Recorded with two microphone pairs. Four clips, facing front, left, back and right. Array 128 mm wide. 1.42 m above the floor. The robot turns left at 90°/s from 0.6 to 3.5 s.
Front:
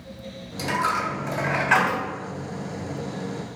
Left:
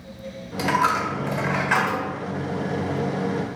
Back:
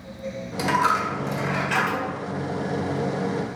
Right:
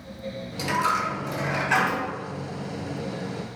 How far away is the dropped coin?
About 1.6 m.